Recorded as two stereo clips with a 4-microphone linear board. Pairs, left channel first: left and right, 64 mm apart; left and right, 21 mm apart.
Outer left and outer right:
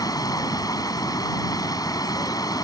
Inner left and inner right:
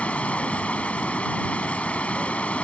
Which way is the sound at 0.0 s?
85° left.